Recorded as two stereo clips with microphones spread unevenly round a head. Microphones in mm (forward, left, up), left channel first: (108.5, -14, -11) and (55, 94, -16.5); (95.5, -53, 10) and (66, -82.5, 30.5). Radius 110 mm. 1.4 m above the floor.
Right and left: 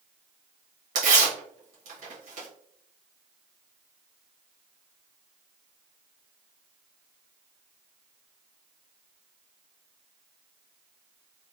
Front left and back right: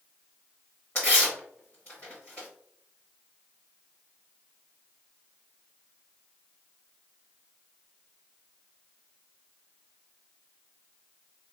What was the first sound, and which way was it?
Tearing paper, 130° left.